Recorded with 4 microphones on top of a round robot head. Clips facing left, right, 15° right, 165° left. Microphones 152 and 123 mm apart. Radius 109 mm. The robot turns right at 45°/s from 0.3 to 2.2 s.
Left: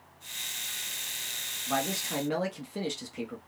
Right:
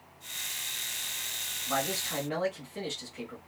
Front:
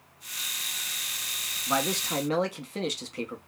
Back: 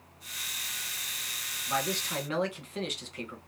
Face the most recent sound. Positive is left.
turn(degrees=40)